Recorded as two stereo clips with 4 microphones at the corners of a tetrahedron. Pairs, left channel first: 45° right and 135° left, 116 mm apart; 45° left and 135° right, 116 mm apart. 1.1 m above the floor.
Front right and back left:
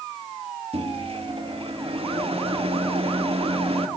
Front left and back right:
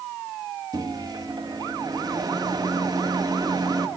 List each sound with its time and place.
0.7 s a microwave: 170° left, 1.5 m